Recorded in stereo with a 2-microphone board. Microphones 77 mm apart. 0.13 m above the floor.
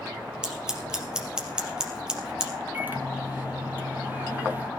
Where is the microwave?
25° right (ahead or behind), 2.5 m.